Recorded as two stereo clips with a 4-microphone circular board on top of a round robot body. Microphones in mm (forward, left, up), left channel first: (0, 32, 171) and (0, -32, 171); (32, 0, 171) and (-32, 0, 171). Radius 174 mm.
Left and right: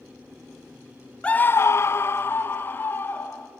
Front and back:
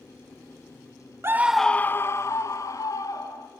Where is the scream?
155° left, 0.6 m; by 3.5 s 30° left, 2 m.